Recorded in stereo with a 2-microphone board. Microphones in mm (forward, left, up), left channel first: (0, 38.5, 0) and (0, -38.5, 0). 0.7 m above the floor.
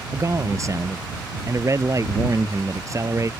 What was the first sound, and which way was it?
A man speaking, 40° right (ahead or behind).